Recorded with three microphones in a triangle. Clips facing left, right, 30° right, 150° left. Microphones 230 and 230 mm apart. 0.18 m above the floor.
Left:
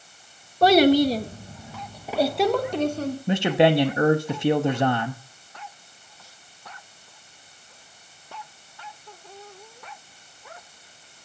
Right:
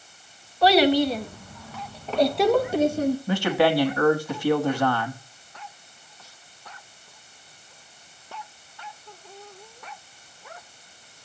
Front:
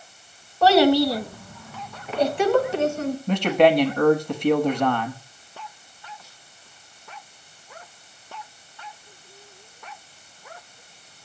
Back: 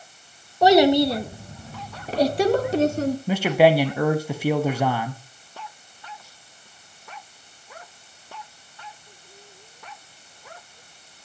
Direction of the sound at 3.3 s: 75° left.